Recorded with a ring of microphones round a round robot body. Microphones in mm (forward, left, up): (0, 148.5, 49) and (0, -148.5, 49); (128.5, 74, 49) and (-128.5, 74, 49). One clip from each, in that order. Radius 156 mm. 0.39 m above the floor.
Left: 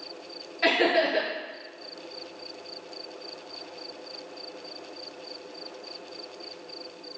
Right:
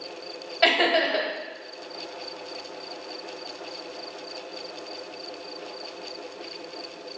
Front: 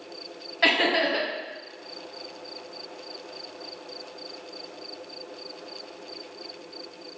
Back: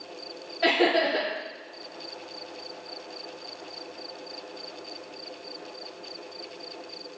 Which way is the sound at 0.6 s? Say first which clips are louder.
Right 2 dB, front 1 dB; 65° right.